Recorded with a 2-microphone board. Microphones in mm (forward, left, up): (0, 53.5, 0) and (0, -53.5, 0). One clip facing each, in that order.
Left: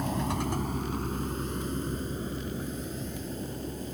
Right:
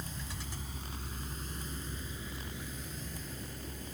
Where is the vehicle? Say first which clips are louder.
Left 15 dB; 70° left (ahead or behind); by 4.0 s 35° left (ahead or behind).